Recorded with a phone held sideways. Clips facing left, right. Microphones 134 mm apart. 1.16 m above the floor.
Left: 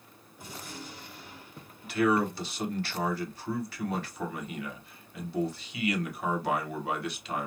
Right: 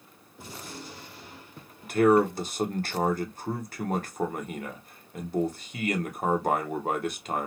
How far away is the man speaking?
About 0.8 m.